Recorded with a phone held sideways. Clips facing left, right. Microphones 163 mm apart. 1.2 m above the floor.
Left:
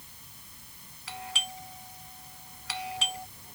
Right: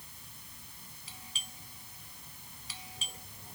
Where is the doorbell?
75° left (ahead or behind).